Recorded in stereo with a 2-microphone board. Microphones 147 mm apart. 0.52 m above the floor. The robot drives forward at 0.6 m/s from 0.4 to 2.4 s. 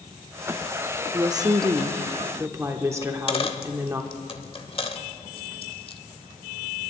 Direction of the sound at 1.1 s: 25° right (ahead or behind).